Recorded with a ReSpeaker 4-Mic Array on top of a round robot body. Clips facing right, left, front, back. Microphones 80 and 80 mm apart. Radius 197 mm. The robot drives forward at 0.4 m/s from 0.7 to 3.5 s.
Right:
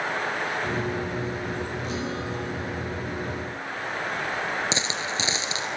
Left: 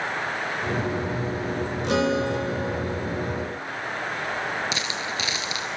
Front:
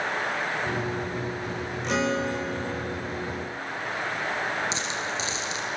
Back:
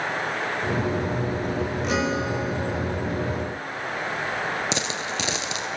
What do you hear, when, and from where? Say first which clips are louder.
1.8 s a guitar: left 8 dB, front 1 dB; 95° left, 3 m; by 3.6 s 105° left, 3 m
4.7 s a dropped coin: even, back 2 dB; 155° right, 1.2 m